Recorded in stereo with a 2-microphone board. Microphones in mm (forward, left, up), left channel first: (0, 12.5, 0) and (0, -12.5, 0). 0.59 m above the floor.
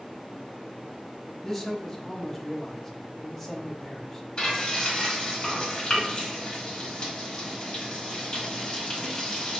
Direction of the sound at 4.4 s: 40° left (ahead or behind).